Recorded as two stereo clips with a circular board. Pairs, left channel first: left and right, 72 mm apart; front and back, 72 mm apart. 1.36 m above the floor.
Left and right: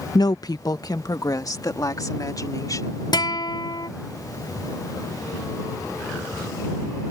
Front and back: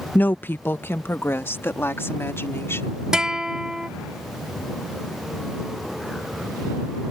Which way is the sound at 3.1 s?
100° left.